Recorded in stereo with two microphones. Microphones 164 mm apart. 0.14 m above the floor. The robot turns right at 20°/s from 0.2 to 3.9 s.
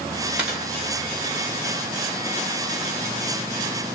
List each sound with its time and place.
0.4 s a dropped coin: 5° right (ahead or behind), 4 m; by 0.7 s 10° right (ahead or behind), 4 m